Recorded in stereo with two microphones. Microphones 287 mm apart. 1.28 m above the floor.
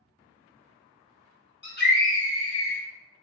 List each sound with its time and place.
1.6 s a scream: 40° left (ahead or behind), 1.7 m; by 2.8 s 5° left (ahead or behind), 1.5 m